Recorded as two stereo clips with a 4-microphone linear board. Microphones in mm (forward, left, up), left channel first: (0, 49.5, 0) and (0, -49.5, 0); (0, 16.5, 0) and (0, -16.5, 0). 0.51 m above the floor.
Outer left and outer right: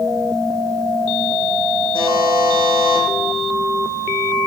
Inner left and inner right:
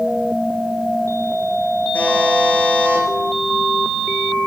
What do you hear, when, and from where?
1.9 s a buzzer: 65° left (ahead or behind), 9 m